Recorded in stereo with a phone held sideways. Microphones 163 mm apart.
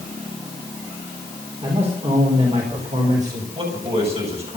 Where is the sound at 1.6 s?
40° right (ahead or behind), 4.5 m; by 3.5 s 50° right (ahead or behind), 5 m.